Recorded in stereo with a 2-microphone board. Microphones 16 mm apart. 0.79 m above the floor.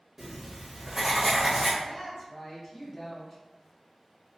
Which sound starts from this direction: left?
A woman speaking, at 1.8 s.